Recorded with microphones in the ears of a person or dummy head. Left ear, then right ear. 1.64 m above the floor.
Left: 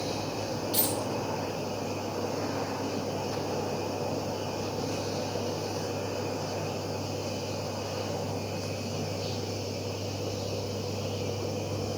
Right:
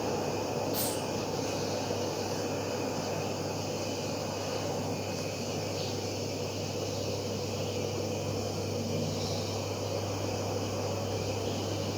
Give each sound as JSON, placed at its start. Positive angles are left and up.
{"t": 0.7, "sound": "a dropped coin", "side_deg": 25, "distance_m": 4.0}